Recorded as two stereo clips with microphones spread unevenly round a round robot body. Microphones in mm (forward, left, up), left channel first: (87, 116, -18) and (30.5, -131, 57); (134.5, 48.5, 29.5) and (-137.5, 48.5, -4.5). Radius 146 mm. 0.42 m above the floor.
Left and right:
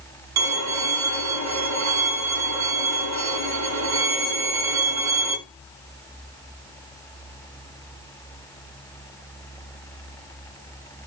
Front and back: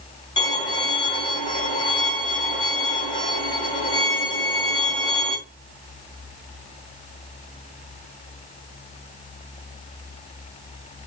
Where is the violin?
80° right, 2 m.